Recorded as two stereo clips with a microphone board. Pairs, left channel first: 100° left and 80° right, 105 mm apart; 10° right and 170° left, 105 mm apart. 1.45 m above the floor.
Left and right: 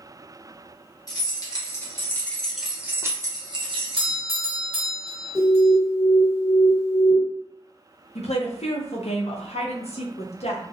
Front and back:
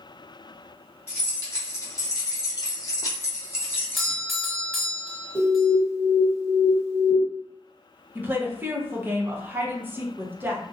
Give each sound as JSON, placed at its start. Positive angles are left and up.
{"t": 1.1, "sound": "keys jangling", "azimuth_deg": 50, "distance_m": 1.2}
{"t": 4.0, "sound": "a doorbell", "azimuth_deg": -100, "distance_m": 1.0}
{"t": 5.3, "sound": "an alarm", "azimuth_deg": 90, "distance_m": 1.3}
{"t": 8.2, "sound": "a woman speaking", "azimuth_deg": 100, "distance_m": 0.6}